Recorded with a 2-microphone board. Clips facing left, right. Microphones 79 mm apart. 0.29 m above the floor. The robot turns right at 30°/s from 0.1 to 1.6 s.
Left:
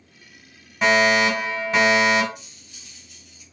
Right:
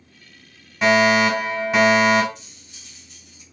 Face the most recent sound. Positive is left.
turn(degrees=-30)  # may be behind; listen again after turning